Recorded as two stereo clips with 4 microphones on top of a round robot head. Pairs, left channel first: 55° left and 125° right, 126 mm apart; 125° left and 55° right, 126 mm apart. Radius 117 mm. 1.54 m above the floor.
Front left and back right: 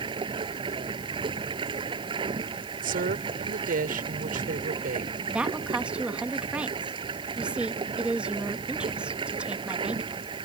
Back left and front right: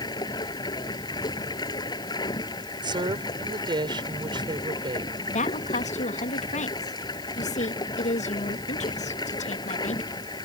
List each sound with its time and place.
0.0 s running water: 175° right
2.8 s a woman speaking: 115° right
5.3 s a woman speaking: 155° left